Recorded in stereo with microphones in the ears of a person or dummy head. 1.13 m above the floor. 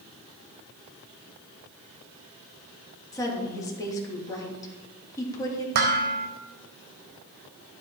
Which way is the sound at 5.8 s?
50° right (ahead or behind).